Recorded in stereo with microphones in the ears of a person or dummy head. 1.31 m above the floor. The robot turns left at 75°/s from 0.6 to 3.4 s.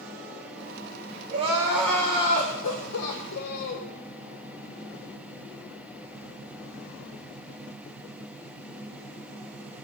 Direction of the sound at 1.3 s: 140° right.